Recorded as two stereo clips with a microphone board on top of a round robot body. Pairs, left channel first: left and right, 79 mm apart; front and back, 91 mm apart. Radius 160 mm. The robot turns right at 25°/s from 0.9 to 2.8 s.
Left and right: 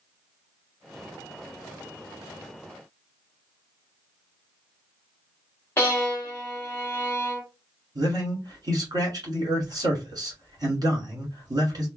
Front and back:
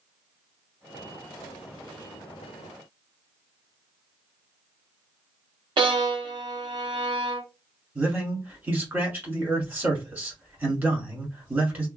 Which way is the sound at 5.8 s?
150° left.